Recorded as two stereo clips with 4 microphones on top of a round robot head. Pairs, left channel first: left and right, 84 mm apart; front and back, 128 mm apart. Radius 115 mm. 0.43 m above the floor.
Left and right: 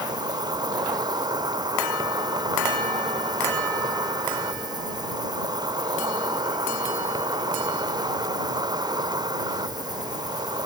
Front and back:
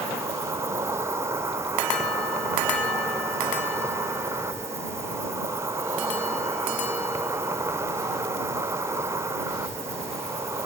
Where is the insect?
115° right.